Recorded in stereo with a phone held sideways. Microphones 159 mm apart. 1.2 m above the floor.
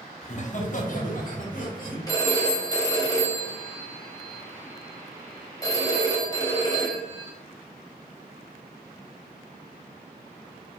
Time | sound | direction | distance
0.2 | laughter | 45° left (ahead or behind) | 0.6 m
2.1 | a phone ringing | 25° left (ahead or behind) | 1.0 m